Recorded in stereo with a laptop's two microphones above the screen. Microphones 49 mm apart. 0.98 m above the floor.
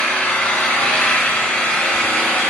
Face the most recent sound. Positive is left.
turn(degrees=25)  # may be behind; listen again after turning